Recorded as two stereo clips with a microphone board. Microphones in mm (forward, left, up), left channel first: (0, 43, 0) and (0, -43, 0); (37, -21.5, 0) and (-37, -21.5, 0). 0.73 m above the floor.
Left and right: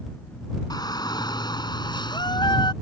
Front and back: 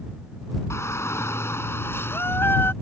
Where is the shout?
50° left; by 2.7 s 60° left.